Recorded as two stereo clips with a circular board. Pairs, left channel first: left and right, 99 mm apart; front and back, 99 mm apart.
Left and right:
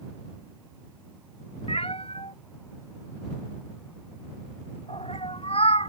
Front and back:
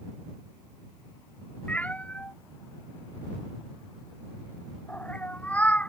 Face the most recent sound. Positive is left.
turn(degrees=75)